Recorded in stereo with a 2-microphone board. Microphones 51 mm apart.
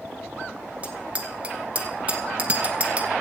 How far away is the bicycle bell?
About 2 m.